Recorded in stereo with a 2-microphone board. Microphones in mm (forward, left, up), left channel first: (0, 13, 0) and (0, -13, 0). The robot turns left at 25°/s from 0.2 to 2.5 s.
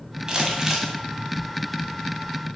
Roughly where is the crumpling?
Right.